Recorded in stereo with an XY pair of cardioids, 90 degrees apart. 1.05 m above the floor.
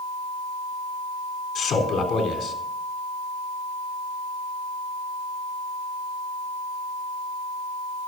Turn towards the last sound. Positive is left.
turn(degrees=65)